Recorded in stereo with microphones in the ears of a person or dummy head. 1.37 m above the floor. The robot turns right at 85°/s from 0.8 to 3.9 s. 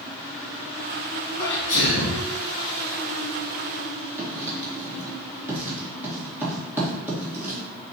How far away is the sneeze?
About 1.7 m.